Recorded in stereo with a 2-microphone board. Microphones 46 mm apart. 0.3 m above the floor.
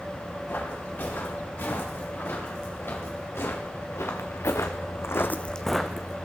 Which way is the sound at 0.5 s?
50° left (ahead or behind).